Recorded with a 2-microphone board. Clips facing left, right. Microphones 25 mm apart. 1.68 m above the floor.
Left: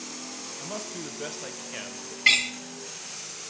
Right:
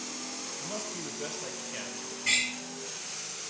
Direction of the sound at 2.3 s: 70° left (ahead or behind).